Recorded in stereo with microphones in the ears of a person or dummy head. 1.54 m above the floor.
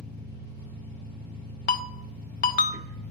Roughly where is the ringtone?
Left.